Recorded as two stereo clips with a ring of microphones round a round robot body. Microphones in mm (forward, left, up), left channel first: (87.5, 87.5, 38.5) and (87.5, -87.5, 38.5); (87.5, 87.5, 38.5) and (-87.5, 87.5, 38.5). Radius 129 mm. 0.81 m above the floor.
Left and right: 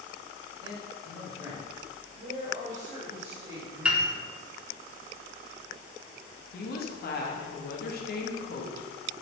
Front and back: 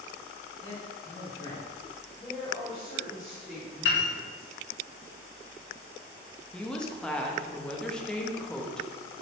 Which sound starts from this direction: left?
A woman speaking, at 6.5 s.